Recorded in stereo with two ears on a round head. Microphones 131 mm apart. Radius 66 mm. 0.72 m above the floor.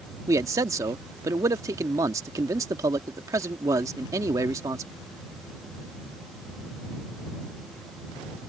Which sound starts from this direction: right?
A man speaking, at 0.3 s.